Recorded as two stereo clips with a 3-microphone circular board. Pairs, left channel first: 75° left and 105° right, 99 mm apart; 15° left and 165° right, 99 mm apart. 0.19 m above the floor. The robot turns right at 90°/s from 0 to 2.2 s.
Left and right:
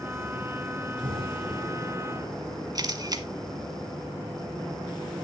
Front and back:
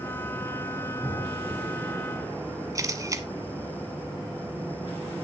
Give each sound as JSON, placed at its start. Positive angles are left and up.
{"t": 1.0, "sound": "an explosion", "azimuth_deg": -80, "distance_m": 6.0}
{"t": 2.8, "sound": "a camera shutter", "azimuth_deg": -125, "distance_m": 1.0}